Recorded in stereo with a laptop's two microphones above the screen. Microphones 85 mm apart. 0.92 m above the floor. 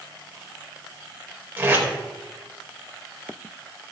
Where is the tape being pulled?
20° right (ahead or behind), 4.5 m.